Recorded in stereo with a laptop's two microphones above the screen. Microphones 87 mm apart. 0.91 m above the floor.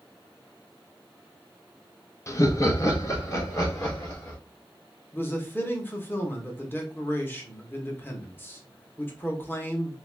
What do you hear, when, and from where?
2.3 s laughter: 30° left (ahead or behind), 0.6 m; by 4.4 s 35° left (ahead or behind), 2 m
5.1 s a man speaking: 20° left (ahead or behind), 0.7 m